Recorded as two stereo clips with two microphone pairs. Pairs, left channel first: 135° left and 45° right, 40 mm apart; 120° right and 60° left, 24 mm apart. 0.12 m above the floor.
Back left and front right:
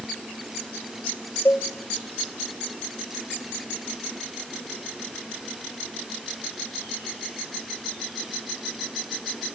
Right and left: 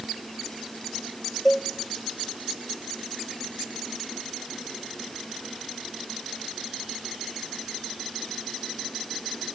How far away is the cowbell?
About 0.9 m.